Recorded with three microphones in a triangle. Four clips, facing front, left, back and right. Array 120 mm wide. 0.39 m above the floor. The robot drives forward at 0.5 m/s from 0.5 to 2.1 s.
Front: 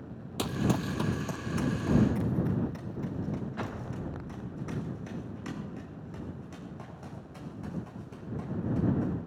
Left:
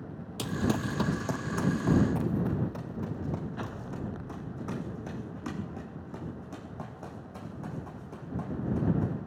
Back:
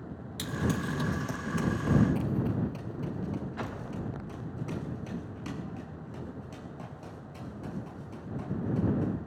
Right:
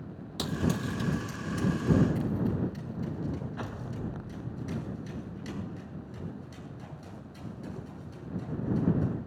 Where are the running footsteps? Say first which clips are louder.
Left 1 dB, front 2 dB; 20° right, 0.6 m; by 9.1 s 90° left, 11.5 m.